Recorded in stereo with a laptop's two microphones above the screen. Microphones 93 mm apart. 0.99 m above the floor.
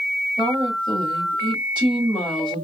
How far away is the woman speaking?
About 2.5 m.